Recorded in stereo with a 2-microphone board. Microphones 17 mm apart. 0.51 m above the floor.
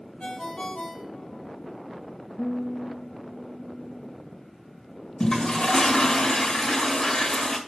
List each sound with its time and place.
0.2 s a ringtone: 75° left (ahead or behind), 2.5 m
2.4 s a guitar: 5° right (ahead or behind), 4 m
5.2 s a toilet flushing: 45° left (ahead or behind), 1.8 m